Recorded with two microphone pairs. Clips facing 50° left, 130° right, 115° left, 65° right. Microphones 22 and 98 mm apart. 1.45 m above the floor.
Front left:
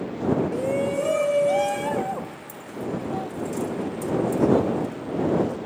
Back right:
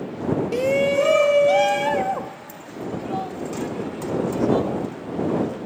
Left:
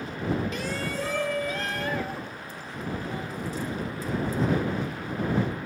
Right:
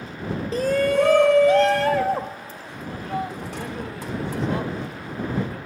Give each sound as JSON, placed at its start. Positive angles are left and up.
{"t": 0.5, "sound": "a shout", "azimuth_deg": -120}